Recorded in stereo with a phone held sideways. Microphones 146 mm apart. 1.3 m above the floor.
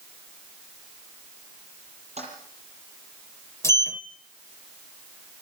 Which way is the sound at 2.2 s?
50° right (ahead or behind).